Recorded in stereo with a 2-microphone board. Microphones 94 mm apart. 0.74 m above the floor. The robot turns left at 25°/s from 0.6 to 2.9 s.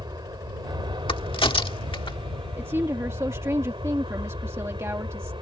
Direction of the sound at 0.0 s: 55° right.